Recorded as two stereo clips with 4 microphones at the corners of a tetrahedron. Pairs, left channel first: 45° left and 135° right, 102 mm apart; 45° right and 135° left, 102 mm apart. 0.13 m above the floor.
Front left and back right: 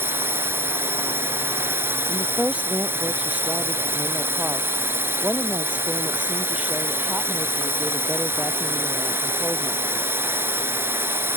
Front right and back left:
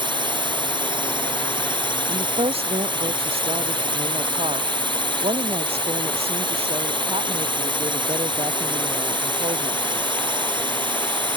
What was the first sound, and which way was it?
A drone, 160° left.